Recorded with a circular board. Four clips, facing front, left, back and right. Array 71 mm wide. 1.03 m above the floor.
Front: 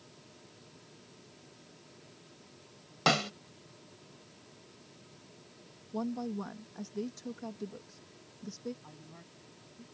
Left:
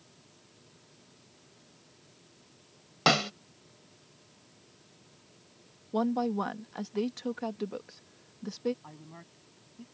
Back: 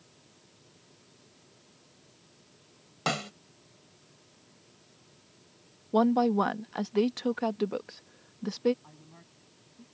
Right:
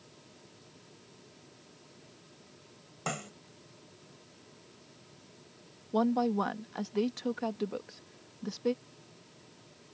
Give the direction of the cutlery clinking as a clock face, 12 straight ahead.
No cutlery clinking in this recording.